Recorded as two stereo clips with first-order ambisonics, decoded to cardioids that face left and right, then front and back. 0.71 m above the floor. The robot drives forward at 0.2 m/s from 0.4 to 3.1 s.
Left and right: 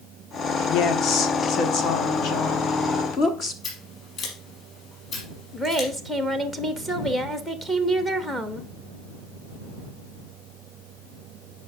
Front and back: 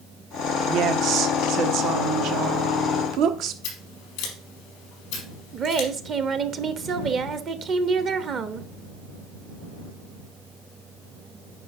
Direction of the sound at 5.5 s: Straight behind.